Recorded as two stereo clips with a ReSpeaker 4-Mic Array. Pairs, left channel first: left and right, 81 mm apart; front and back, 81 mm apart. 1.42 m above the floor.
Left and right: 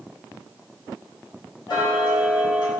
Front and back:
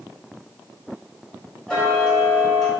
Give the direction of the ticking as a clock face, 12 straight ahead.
9 o'clock.